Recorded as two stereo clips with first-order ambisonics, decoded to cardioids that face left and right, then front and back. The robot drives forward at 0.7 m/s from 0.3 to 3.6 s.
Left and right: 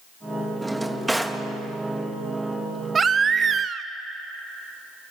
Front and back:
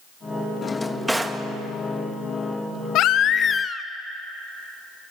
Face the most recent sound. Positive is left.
turn(degrees=-50)